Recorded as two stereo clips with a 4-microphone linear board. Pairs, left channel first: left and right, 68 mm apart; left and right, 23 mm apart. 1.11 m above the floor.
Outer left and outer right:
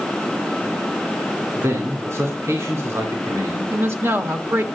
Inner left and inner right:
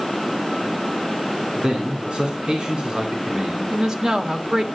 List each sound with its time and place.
1.6 s a man speaking: 50° right (ahead or behind), 2.5 m
3.7 s a woman speaking: 40° right (ahead or behind), 1.4 m